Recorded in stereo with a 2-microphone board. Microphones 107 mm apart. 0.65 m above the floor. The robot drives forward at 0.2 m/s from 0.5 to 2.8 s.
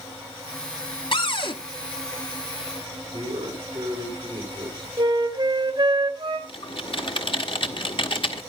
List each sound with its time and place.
1.1 s a cupboard door: 50° left (ahead or behind), 1.3 m
3.1 s a man speaking: 45° right (ahead or behind), 4.5 m
5.0 s a flute: 40° right (ahead or behind), 1.7 m
6.5 s typing on a keyboard: 50° left (ahead or behind), 1.3 m